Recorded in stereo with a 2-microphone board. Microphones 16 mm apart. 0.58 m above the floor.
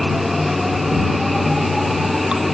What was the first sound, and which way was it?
Running water, 35° right (ahead or behind).